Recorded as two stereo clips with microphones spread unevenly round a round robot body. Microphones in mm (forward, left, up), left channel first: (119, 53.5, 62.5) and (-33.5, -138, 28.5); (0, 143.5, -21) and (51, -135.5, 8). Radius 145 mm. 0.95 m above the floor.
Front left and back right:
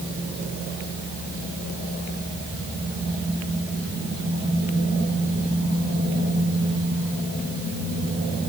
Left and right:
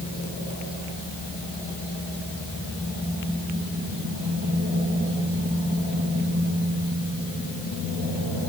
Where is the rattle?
I don't hear a rattle.